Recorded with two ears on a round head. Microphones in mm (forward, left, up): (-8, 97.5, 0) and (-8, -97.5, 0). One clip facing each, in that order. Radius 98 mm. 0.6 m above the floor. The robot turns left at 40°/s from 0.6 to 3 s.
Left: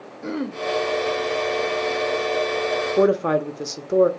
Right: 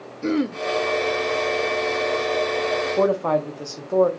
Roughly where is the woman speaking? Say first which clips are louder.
Left 3 dB; left.